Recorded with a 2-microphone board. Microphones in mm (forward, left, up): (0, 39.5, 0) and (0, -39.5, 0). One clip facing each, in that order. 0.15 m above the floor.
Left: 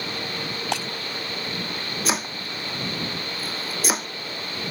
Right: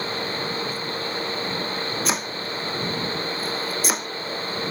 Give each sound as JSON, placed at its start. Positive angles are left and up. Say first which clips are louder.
{"t": 0.7, "sound": "breaking glass", "louder": "left 3 dB", "side_deg": 90}
{"t": 2.0, "sound": "chopping", "louder": "right 1 dB", "side_deg": 0}